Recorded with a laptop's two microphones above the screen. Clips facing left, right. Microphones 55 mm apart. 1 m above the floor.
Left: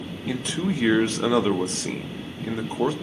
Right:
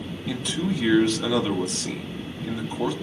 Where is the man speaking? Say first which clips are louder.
Left 1 dB; 30° left (ahead or behind), 0.7 m.